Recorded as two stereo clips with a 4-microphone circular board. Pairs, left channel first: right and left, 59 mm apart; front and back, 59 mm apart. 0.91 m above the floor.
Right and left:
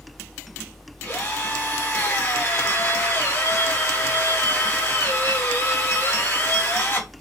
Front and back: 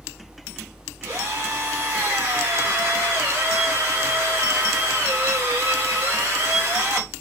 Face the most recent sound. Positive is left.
turn(degrees=-140)